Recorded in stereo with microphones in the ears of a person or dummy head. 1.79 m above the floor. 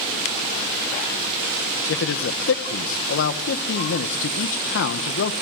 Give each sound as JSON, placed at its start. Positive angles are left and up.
{"t": 1.9, "sound": "a man speaking", "side_deg": 70, "distance_m": 1.6}